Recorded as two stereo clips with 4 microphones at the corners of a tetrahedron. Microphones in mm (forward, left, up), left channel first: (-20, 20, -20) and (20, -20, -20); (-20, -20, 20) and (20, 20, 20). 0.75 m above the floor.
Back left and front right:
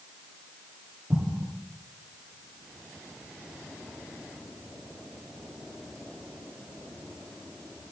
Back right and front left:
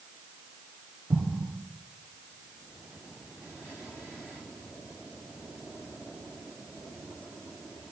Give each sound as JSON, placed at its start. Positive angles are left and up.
{"t": 1.1, "sound": "an explosion", "azimuth_deg": 20, "distance_m": 5.0}